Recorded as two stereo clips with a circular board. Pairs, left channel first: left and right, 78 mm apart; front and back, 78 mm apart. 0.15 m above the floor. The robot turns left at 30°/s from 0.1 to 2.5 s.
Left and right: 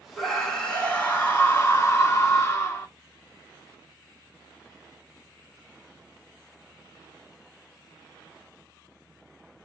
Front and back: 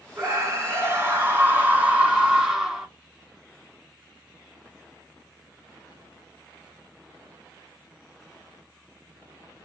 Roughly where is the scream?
Behind.